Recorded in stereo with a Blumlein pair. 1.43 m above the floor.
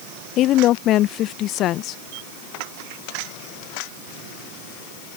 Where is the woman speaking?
35° left.